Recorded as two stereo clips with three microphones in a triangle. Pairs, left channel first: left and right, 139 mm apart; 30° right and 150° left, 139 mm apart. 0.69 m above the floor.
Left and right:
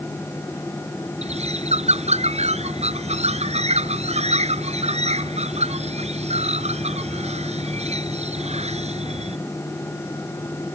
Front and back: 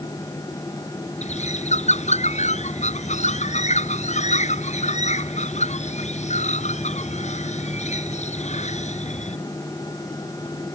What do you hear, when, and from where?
1.2 s a bird: 55° right